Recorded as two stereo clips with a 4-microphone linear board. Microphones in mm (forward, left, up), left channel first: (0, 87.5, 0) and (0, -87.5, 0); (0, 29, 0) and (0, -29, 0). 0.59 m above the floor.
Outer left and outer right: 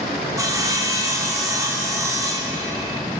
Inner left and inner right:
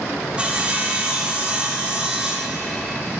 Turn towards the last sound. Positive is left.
turn(degrees=-20)  # may be behind; listen again after turning